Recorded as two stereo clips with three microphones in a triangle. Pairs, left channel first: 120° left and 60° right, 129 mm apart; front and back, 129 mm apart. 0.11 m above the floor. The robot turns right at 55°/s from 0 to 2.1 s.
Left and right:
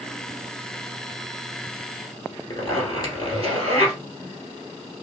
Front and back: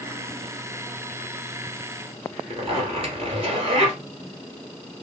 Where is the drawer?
No drawer in this recording.